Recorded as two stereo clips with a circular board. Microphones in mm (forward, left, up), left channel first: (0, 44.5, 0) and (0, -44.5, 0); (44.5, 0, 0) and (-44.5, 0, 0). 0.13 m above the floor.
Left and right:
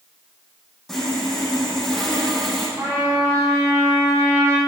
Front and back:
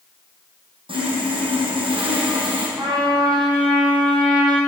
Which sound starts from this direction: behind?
Sawing, at 0.9 s.